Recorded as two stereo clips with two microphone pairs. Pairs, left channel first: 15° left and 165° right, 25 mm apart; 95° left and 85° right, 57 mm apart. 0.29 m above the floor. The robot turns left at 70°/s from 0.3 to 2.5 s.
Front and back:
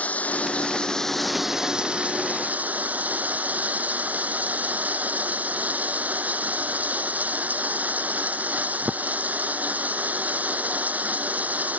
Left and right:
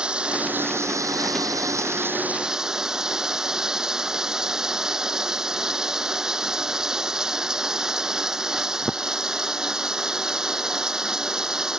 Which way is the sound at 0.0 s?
10° right.